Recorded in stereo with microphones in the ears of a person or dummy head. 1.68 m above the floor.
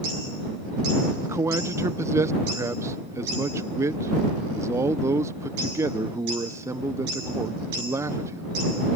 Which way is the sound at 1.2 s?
10° right (ahead or behind).